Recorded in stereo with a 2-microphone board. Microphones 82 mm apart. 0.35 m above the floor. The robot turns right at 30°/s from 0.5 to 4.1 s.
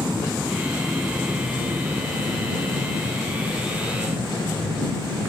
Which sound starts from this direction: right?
An aircraft, at 0.0 s.